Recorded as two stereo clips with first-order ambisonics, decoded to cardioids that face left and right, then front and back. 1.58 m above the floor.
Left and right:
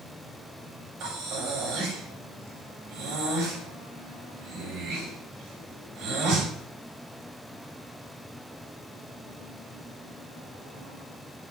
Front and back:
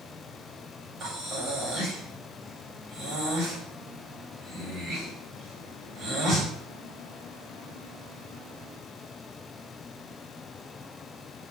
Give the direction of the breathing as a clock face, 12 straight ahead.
4 o'clock.